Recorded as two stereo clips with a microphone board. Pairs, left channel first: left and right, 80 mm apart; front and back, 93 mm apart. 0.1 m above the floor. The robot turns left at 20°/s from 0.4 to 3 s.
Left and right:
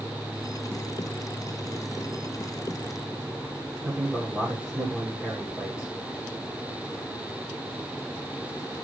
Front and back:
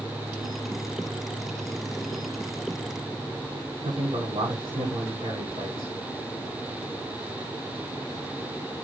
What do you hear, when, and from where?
3.8 s a man speaking: 175° right, 8.5 m